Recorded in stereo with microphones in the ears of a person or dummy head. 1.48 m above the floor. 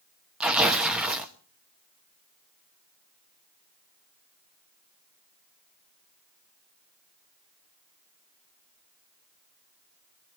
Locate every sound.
0.4 s tearing paper: 5° right (ahead or behind), 1.0 m